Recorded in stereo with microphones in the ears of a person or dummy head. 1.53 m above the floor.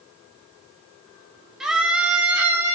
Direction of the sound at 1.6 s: 5° right (ahead or behind).